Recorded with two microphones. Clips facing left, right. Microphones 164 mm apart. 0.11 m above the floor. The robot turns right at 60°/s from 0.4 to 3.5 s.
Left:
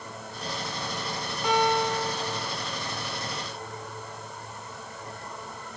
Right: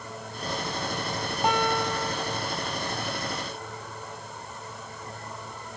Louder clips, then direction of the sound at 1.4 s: Left 2 dB; 120° right.